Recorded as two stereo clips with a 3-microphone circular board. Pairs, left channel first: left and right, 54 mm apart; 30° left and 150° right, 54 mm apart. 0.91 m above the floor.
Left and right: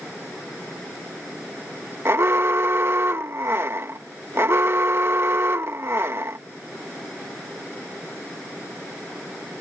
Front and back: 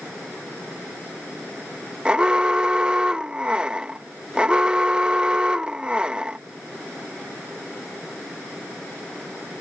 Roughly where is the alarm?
Right.